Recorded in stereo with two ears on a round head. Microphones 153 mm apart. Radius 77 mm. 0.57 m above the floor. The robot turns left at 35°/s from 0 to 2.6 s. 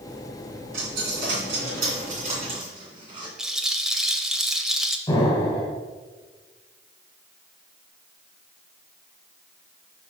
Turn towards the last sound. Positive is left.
turn(degrees=20)  # may be behind; listen again after turning